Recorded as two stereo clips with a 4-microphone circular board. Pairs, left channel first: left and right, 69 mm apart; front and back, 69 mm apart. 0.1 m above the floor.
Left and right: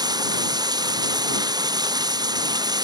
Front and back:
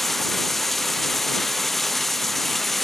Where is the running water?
90° right.